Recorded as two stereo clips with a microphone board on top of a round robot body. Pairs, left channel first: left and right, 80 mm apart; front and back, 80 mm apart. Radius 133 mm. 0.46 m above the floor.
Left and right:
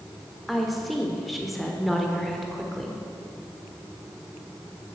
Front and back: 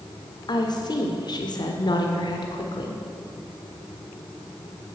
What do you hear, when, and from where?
0.5 s a woman speaking: straight ahead, 1.7 m